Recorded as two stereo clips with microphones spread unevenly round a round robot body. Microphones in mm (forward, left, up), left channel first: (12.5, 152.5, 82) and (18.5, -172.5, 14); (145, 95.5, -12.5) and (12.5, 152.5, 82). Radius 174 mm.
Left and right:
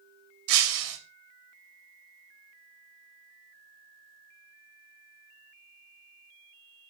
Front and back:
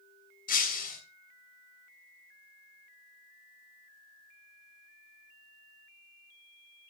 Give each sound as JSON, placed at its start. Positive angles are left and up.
{"t": 0.5, "sound": "breaking glass", "azimuth_deg": -60, "distance_m": 3.0}